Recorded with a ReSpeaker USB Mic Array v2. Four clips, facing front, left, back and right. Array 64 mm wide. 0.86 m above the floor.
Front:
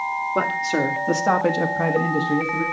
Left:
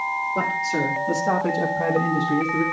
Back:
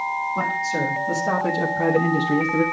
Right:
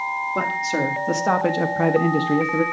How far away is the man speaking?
About 1.8 m.